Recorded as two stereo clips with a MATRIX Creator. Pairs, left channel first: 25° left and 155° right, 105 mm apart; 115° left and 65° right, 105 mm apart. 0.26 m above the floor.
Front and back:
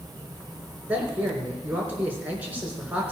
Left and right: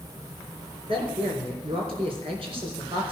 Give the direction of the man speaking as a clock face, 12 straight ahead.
3 o'clock.